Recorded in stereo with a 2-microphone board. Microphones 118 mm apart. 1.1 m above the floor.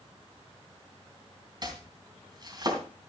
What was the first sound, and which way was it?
Chopping, 40° right (ahead or behind).